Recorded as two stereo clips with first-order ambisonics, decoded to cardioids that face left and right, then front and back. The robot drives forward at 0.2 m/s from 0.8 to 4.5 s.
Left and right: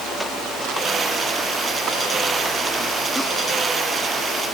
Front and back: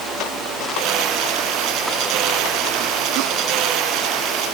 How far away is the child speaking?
I don't hear a child speaking.